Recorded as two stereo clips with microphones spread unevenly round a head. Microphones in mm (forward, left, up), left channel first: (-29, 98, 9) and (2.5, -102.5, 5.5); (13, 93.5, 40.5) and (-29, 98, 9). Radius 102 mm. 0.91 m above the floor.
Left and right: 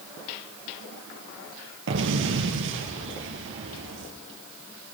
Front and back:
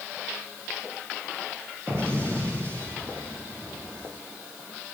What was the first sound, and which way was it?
An explosion, 115° right.